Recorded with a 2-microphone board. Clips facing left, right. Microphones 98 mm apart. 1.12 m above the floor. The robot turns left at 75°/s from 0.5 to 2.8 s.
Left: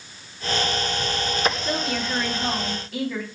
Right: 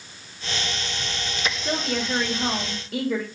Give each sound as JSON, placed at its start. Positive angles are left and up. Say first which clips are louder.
{"t": 1.6, "sound": "a woman speaking", "louder": "even", "azimuth_deg": -30, "distance_m": 2.0}